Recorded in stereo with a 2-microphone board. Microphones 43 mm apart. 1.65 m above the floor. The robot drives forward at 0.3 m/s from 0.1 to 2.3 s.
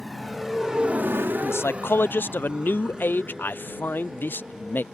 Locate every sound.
0.0 s a motorcycle: centre (ahead or behind); by 4.9 s 15° right (ahead or behind)
1.4 s a man speaking: 70° left (ahead or behind); by 4.8 s 50° left (ahead or behind)